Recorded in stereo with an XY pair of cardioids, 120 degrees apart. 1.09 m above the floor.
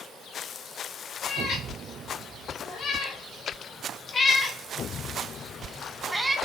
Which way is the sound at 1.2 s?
70° left.